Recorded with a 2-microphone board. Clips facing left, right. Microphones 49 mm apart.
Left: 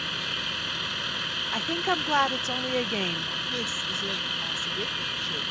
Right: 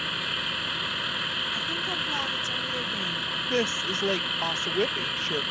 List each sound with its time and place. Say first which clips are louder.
0.0 s a vehicle: right 1 dB; 10° right (ahead or behind)
1.5 s a woman speaking: left 3 dB; 50° left (ahead or behind)
3.5 s a woman speaking: right 4 dB; 55° right (ahead or behind)